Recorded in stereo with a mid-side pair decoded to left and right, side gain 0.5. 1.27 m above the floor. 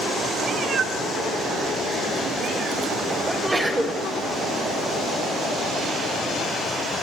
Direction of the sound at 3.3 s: 10° right.